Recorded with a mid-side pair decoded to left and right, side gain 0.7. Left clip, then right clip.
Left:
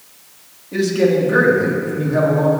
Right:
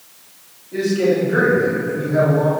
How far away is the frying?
I don't hear frying.